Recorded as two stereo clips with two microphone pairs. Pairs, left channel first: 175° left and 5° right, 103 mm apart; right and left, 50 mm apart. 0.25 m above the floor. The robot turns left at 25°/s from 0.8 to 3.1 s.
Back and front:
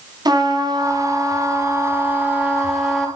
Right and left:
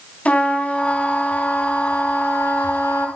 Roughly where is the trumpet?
Ahead right.